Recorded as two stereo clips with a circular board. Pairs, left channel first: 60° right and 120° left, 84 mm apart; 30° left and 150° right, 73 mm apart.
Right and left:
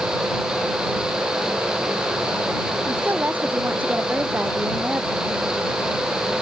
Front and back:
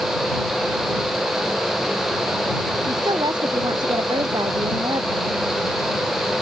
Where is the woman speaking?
170° right; by 5.4 s 165° right.